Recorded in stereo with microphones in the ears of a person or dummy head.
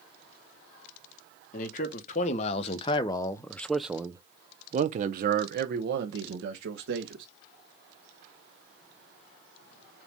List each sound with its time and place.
1.5 s a man speaking: 50° left (ahead or behind), 1.8 m; by 7.2 s 75° right (ahead or behind), 2.5 m